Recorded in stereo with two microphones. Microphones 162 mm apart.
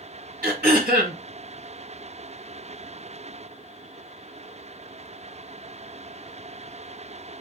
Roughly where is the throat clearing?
Right.